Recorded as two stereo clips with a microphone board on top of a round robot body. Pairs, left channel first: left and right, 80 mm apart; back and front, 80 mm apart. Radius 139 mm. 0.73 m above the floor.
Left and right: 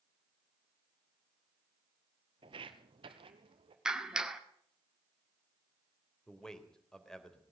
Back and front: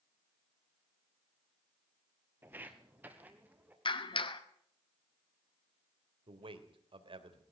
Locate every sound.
2.4 s footsteps: 70° right, 0.9 m
3.9 s a clap: 170° right, 2 m
6.3 s a man speaking: 5° left, 3.5 m